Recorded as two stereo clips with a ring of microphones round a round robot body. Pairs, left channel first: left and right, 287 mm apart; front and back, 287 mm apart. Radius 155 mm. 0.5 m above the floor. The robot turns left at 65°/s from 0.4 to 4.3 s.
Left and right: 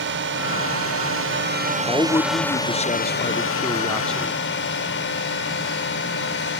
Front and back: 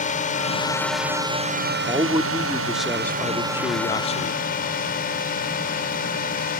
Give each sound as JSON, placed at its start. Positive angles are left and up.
{"t": 0.0, "sound": "a drone", "azimuth_deg": -55}
{"t": 1.9, "sound": "a man speaking", "azimuth_deg": 155}